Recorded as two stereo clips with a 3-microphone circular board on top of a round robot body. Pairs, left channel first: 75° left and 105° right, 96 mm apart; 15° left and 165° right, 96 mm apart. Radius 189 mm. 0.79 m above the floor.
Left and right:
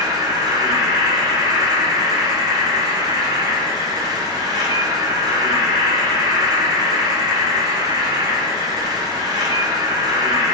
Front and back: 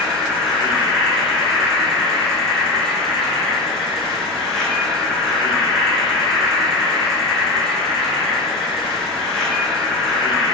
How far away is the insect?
About 1.1 m.